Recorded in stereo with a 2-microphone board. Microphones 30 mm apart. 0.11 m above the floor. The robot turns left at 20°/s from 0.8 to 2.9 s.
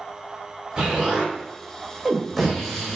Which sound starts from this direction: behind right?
An explosion, at 0.8 s.